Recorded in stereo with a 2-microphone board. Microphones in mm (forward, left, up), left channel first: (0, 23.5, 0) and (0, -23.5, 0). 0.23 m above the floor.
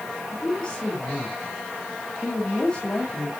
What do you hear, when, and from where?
0.3 s a woman speaking: 20° left (ahead or behind), 1.8 m